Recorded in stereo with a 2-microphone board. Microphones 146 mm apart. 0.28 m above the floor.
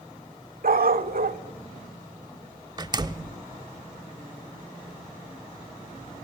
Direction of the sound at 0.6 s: 80° right.